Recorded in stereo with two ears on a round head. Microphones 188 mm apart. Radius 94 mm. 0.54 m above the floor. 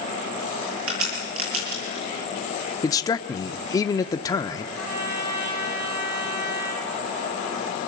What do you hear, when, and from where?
0.9 s a crack: 70° right (ahead or behind), 8.5 m
2.8 s a man speaking: 20° left (ahead or behind), 0.8 m
4.8 s a trumpet: 80° right, 3.5 m